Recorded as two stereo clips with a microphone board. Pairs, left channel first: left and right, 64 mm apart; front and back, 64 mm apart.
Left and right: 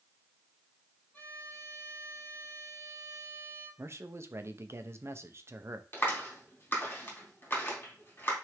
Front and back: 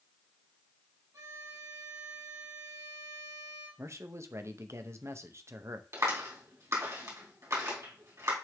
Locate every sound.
1.1 s a violin: 155° left, 3.5 m
3.8 s a man speaking: 135° right, 0.8 m
5.9 s a clap: 145° left, 3 m